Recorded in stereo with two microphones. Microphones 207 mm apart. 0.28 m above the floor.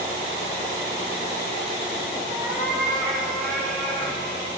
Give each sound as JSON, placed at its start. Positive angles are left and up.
{"t": 2.3, "sound": "a cat meowing", "side_deg": -10, "distance_m": 4.5}